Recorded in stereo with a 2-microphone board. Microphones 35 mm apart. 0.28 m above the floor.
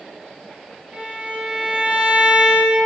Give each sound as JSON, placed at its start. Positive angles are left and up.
{"t": 0.9, "sound": "a violin", "side_deg": -40, "distance_m": 2.0}